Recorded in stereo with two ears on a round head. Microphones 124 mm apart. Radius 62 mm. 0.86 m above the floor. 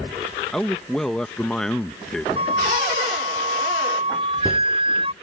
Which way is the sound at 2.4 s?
40° right (ahead or behind).